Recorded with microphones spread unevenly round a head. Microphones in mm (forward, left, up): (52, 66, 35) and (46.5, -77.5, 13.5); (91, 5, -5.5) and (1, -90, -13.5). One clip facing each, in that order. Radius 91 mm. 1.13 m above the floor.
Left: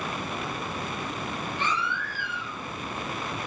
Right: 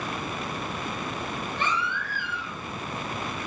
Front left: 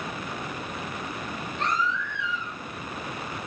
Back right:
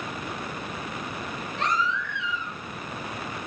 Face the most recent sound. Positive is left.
turn(degrees=-125)